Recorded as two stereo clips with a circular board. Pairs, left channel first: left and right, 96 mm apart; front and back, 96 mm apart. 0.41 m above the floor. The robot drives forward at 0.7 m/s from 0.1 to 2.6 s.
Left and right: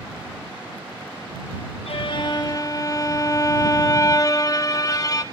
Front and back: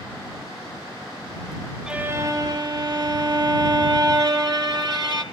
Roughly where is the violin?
Left.